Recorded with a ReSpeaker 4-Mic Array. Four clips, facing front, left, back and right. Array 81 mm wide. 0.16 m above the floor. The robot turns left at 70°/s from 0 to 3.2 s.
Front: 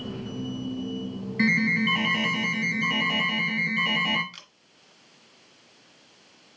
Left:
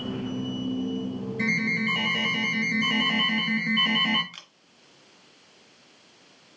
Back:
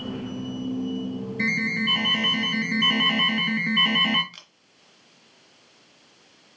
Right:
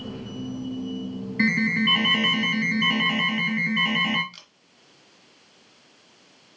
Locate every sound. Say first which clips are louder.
1.4 s an alarm: right 5 dB, front 4 dB; 45° right, 2 m; by 4.2 s 170° right, 2 m
4.3 s a camera shutter: left 3 dB, front 1 dB; 95° left, 1.5 m